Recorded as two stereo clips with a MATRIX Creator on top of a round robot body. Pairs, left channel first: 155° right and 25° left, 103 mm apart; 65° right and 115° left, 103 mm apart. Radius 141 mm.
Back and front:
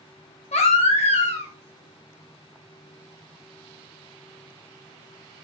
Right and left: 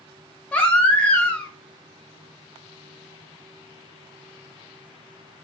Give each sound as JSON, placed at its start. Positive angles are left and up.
{"t": 0.5, "sound": "a baby crying", "azimuth_deg": -145, "distance_m": 1.3}